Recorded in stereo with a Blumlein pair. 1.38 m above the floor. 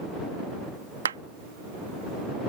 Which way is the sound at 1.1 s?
65° right.